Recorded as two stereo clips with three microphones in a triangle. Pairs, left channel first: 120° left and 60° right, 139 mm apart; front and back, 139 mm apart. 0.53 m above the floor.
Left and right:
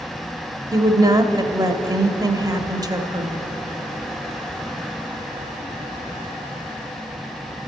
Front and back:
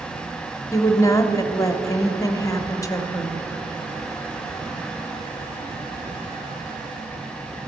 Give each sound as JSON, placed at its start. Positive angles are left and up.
{"t": 0.7, "sound": "a woman speaking", "azimuth_deg": -35, "distance_m": 0.9}